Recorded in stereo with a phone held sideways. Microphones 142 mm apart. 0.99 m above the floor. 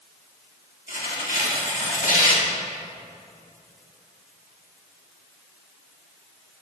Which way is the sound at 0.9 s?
65° left (ahead or behind).